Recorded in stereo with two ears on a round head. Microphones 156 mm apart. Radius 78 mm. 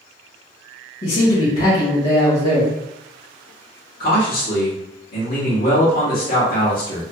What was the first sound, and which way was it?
A man speaking, 35° left (ahead or behind).